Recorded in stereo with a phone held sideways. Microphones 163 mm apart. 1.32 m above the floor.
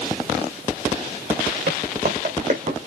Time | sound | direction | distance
1.7 | footsteps | 65° right (ahead or behind) | 4 m